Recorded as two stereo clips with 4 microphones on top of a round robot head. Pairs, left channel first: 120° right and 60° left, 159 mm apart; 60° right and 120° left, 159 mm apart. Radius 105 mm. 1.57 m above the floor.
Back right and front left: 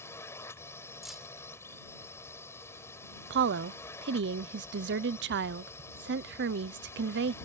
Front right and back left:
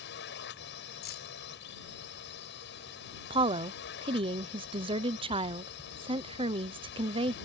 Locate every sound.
0.0 s a drone: 45° right
1.0 s keys jangling: 30° right
3.3 s a woman speaking: 65° left